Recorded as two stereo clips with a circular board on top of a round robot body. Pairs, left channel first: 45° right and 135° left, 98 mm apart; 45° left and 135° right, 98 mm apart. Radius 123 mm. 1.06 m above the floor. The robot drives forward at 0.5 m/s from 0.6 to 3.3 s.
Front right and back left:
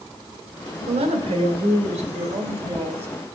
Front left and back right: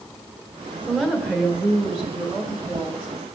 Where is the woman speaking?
140° left, 1.8 m; by 3.1 s 155° left, 2.5 m.